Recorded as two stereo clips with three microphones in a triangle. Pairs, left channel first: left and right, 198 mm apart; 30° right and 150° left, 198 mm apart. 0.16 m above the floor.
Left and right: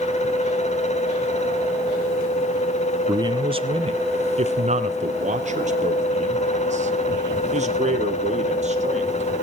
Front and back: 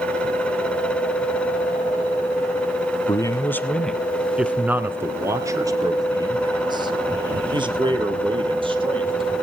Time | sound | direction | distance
3.1 | a man speaking | 65° right | 1.0 m